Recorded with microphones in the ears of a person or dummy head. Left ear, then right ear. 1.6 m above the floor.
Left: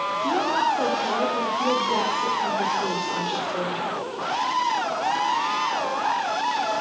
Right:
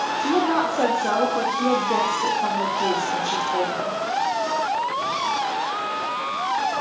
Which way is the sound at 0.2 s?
55° right (ahead or behind).